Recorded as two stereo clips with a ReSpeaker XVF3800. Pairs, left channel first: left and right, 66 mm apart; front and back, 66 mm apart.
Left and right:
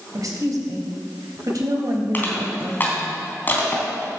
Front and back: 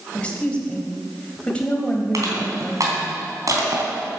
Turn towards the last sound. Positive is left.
turn(degrees=150)